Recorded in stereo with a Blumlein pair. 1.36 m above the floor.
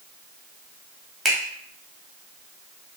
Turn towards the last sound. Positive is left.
turn(degrees=-15)